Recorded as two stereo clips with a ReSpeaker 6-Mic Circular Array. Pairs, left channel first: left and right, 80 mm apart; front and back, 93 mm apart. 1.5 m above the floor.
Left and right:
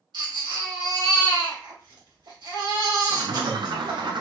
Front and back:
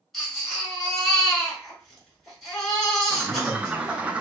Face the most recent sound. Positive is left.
turn(degrees=-105)